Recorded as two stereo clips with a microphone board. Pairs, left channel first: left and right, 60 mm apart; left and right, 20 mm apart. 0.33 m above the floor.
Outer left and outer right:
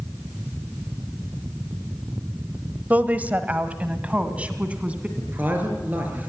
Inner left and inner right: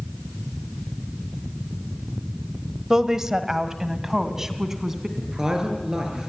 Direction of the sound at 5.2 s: 30° right (ahead or behind).